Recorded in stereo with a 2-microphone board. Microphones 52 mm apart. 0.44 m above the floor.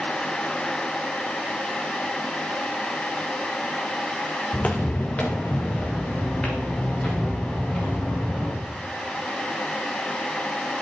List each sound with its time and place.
4.5 s footsteps: 30° left (ahead or behind), 1.7 m; by 8.6 s 20° left (ahead or behind), 6.5 m